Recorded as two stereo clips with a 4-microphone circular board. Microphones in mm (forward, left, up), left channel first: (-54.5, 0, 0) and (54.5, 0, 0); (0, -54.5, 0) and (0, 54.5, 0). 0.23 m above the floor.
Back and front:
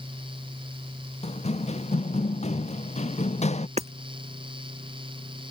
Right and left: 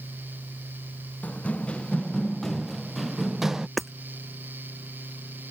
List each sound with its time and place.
1.2 s running footsteps: 165° right; by 3.7 s 175° left
3.8 s hammering: straight ahead